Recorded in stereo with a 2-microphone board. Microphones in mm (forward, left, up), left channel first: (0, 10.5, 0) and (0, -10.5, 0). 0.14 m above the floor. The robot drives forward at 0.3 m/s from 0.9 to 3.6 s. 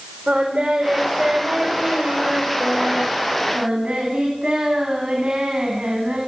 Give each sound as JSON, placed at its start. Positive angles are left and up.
{"t": 0.3, "sound": "singing", "side_deg": -45, "distance_m": 9.0}